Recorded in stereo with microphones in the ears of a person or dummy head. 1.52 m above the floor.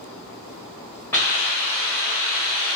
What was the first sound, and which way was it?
A hiss, 15° left (ahead or behind).